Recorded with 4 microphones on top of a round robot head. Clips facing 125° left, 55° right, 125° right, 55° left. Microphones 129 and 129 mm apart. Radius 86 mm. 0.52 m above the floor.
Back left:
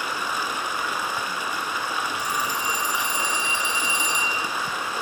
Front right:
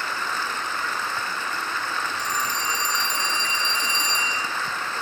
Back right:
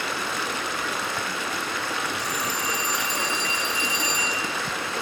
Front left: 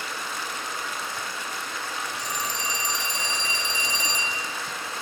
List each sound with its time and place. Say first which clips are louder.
0.0 s running water: back left 1 dB, back right 5 dB; 155° right, 1.5 m
2.2 s a phone ringing: back left 1 dB, back right 3 dB; 45° left, 3 m